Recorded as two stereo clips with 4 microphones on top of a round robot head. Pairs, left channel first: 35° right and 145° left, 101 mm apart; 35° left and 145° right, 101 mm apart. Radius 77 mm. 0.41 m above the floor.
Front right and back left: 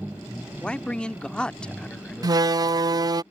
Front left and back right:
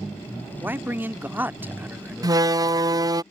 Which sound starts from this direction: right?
A man speaking, at 0.6 s.